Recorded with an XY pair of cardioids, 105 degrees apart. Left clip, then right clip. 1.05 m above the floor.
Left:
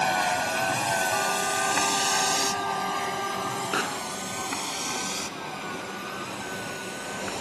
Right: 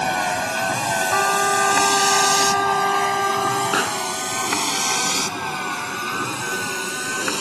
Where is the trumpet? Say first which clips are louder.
Right 8 dB; 65° right.